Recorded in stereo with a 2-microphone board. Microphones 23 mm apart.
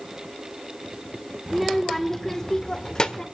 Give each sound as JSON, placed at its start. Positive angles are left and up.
{"t": 1.5, "sound": "a child speaking", "side_deg": 0, "distance_m": 1.3}